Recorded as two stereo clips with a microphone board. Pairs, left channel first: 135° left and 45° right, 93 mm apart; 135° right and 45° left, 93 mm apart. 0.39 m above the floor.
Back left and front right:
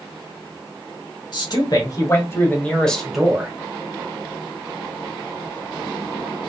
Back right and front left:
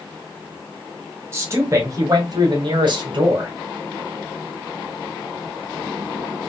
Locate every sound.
1.3 s a man speaking: 100° left, 2 m; by 3.5 s 30° left, 1.8 m